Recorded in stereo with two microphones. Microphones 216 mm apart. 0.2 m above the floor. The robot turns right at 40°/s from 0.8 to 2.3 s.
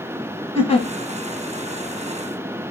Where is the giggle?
30° left (ahead or behind), 0.9 m.